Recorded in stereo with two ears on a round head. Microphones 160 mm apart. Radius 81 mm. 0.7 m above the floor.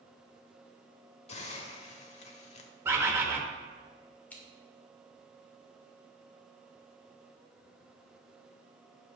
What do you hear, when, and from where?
1.3 s a hiss: 40° left (ahead or behind), 1.1 m
2.9 s a bird: 15° right (ahead or behind), 1.1 m
4.3 s scissors: 10° left (ahead or behind), 2 m